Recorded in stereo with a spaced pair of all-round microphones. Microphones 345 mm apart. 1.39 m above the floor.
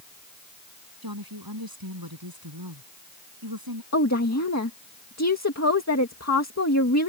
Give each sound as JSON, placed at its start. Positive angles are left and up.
{"t": 1.0, "sound": "a woman speaking", "side_deg": -75}
{"t": 3.9, "sound": "a woman speaking", "side_deg": 45}